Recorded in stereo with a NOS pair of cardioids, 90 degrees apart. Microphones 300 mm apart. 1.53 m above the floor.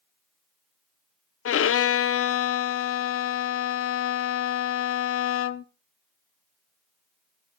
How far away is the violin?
About 0.8 m.